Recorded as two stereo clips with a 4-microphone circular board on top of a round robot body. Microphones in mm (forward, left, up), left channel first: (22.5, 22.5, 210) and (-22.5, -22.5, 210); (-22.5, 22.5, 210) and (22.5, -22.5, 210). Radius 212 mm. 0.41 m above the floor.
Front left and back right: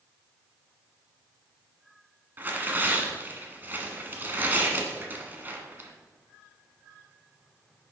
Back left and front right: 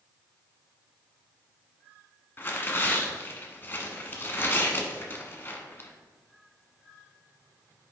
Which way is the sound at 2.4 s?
Straight behind.